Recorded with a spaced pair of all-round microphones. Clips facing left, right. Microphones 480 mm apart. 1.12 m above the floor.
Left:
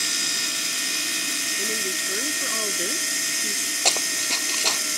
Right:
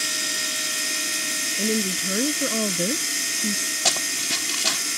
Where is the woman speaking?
65° right (ahead or behind); by 3.8 s 60° right (ahead or behind).